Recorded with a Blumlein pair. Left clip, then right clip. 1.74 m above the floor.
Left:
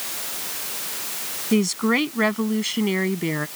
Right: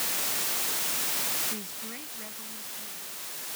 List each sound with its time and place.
1.5 s a woman speaking: 40° left; by 3.5 s 45° left